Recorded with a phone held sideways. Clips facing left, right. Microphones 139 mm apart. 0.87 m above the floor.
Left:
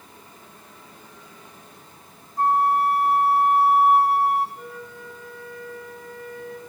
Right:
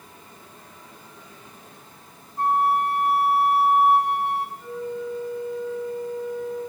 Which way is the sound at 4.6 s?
70° left (ahead or behind).